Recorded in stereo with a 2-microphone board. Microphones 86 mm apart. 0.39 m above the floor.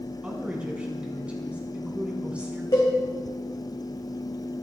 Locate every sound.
0.2 s a woman speaking: 15° right (ahead or behind), 3.5 m
2.7 s a cowbell: 55° left (ahead or behind), 4.5 m